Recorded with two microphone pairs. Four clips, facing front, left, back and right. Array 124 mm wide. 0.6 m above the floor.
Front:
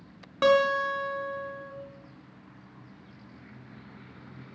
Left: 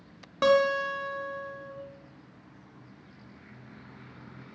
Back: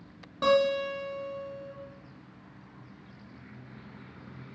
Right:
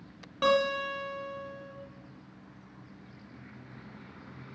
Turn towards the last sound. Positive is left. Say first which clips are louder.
# left 4 dB, front 2 dB
turn(degrees=40)